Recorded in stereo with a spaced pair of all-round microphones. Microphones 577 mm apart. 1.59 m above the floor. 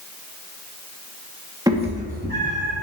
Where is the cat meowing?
5° right (ahead or behind), 1.0 m; by 2.7 s 20° right (ahead or behind), 2.0 m.